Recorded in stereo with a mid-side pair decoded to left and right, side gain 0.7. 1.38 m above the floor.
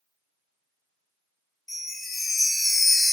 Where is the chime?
5° left, 0.6 m.